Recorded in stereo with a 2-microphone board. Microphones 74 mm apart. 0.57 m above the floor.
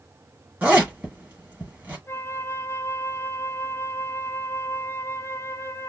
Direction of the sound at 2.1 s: 35° left (ahead or behind).